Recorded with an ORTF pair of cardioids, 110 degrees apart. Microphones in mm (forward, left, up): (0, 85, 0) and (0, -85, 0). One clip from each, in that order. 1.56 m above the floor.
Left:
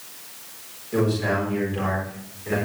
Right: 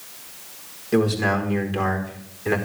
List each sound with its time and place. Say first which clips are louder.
0.9 s a man speaking: right 2 dB; 55° right, 4.5 m; by 2.6 s 70° right, 4.5 m